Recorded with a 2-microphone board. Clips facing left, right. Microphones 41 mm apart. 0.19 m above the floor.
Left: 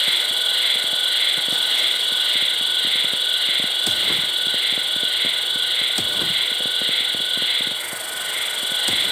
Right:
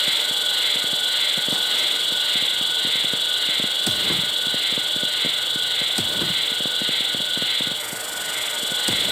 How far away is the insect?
About 0.9 m.